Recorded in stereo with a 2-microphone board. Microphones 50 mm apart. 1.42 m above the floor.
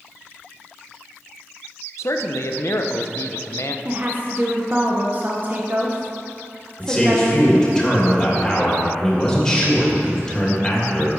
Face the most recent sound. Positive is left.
turn(degrees=10)  # may be behind; listen again after turning